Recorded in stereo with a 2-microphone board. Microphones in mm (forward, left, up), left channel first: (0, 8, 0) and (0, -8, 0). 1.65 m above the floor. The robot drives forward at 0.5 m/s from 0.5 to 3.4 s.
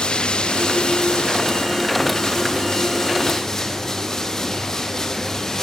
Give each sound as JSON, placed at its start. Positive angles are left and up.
{"t": 0.0, "sound": "running water", "side_deg": 75, "distance_m": 0.9}